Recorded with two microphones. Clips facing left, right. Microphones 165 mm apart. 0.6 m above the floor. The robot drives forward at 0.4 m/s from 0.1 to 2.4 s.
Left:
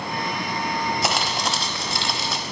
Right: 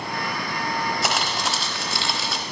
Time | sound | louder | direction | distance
1.0 | crumpling | left 1 dB | centre (ahead or behind) | 1.2 m